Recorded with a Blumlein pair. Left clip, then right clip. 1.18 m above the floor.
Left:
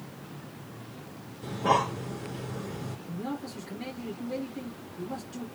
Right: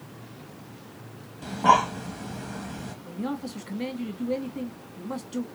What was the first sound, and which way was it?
Breathing, 60° right.